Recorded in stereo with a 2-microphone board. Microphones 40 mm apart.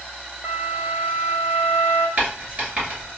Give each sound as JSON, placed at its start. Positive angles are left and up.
{"t": 0.4, "sound": "a flute", "side_deg": -55, "distance_m": 0.5}
{"t": 2.2, "sound": "writing", "side_deg": -35, "distance_m": 1.9}